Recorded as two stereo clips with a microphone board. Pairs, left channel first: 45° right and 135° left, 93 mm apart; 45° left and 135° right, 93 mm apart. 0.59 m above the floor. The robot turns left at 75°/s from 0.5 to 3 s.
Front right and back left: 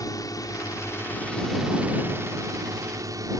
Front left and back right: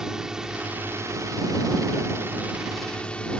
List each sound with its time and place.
0.0 s a drone: 55° right; by 3.4 s 120° left